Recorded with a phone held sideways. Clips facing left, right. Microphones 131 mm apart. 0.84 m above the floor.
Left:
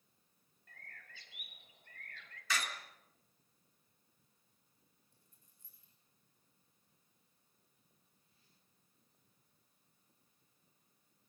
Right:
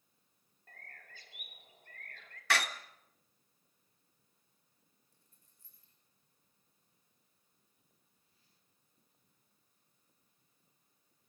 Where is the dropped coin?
20° left (ahead or behind), 8.5 m.